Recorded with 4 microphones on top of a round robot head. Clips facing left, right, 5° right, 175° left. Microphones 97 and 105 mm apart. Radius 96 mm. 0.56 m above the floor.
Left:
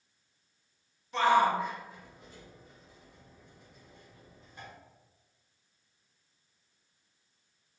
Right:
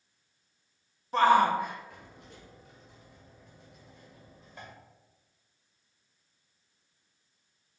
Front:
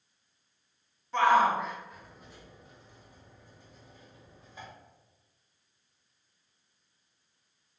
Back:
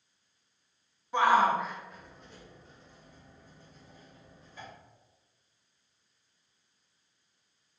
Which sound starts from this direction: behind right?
A shout, at 1.1 s.